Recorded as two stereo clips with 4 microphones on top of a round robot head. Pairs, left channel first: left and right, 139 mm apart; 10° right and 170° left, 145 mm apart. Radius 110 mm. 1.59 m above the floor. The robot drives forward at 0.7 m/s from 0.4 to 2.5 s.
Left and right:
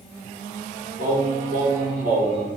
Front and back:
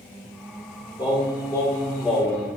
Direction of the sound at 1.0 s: 70° right.